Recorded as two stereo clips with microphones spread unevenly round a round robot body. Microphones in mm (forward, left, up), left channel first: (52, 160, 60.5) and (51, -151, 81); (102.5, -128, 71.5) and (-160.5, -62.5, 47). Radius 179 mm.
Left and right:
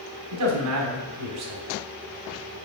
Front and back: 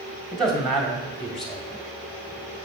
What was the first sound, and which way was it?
A man speaking, 105° right.